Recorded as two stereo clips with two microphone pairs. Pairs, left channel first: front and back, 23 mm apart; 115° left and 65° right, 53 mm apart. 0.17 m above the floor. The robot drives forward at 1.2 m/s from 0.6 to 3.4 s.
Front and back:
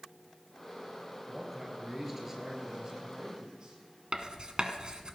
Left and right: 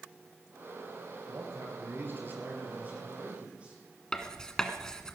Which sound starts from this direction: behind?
Writing, at 4.1 s.